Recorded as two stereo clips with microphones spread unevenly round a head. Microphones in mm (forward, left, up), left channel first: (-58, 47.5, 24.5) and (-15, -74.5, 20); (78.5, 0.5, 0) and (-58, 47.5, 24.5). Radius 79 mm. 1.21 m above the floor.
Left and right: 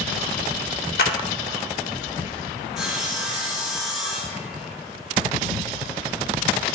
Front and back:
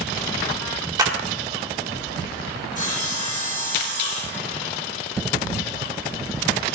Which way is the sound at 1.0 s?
100° left.